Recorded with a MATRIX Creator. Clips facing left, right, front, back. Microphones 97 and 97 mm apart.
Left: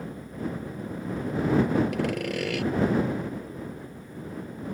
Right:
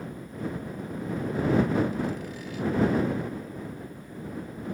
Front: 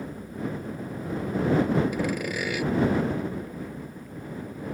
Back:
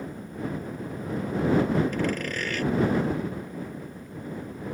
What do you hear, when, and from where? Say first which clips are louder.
1.9 s sawing: left 4 dB, even; 80° left